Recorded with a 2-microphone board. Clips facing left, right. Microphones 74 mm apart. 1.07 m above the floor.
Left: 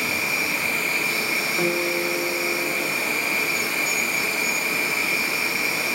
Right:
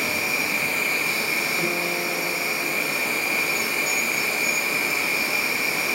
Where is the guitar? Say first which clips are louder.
Left 3 dB; 50° left (ahead or behind), 1.1 m.